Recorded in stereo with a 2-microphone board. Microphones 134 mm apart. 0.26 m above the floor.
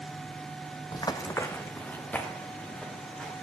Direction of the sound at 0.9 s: 35° left (ahead or behind).